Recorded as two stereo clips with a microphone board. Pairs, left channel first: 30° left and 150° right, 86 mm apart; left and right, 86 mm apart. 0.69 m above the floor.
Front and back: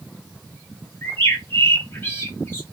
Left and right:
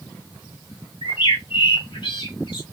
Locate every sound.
1.0 s a bird: 90° left, 1.3 m